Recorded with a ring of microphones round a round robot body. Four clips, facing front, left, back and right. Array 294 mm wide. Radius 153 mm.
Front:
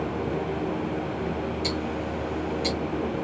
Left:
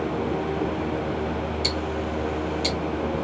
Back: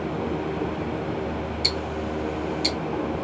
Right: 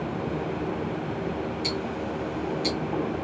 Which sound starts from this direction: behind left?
Ticking, at 1.6 s.